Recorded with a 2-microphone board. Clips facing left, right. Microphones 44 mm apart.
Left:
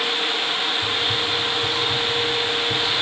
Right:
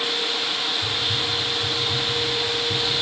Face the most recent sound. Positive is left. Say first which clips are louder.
# left 3 dB
turn(degrees=50)  # may be behind; listen again after turning